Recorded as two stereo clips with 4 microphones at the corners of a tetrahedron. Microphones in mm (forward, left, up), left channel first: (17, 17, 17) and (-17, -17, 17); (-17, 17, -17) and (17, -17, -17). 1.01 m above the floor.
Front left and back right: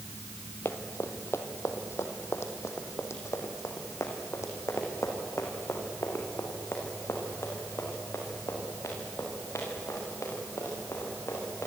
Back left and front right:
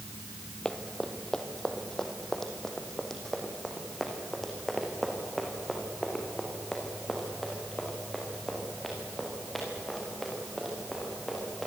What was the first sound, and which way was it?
Running footsteps, 60° left.